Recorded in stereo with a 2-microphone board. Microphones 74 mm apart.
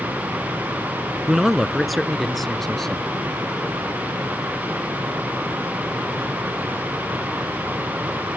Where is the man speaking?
5° right (ahead or behind); by 3.2 s 5° left (ahead or behind).